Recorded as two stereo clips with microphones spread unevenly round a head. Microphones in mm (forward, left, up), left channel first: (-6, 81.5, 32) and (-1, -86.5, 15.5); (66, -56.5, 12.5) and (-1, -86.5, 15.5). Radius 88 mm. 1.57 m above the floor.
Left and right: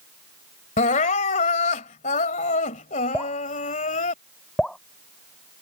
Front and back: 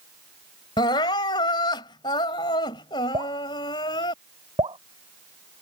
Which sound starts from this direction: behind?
Dripping, at 3.1 s.